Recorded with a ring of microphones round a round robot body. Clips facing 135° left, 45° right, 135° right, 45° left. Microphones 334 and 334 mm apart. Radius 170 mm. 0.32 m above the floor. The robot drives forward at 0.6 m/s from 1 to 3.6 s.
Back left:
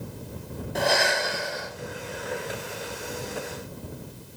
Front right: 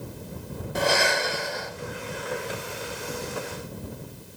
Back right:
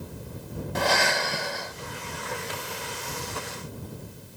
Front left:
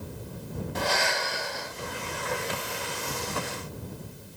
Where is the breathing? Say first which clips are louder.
Front right 1 dB, back right 4 dB; 130° right, 3 m; by 1.7 s 135° right, 3.5 m.